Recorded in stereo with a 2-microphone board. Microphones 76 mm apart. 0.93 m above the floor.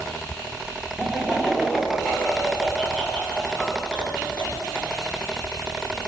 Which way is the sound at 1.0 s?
5° right (ahead or behind).